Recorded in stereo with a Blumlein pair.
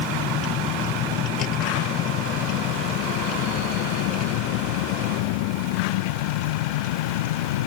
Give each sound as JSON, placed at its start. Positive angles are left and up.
{"t": 0.0, "sound": "a vehicle", "azimuth_deg": 30}